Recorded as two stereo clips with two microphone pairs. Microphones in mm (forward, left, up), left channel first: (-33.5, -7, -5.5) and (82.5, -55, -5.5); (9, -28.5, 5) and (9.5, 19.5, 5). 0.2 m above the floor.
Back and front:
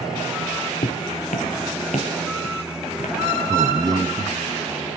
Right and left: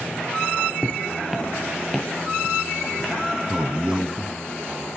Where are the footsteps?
Straight behind, 1.4 m; by 3.1 s 175° left, 4.5 m.